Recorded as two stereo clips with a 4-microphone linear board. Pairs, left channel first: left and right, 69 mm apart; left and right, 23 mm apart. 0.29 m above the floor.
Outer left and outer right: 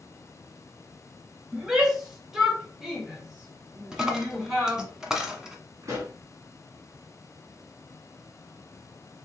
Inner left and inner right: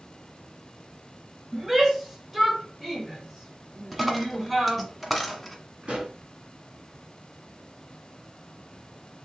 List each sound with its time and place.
1.5 s a shout: 5° right (ahead or behind), 1.2 m
3.9 s a dropped coin: 10° right (ahead or behind), 0.9 m
5.8 s a pop: 50° right (ahead or behind), 2.0 m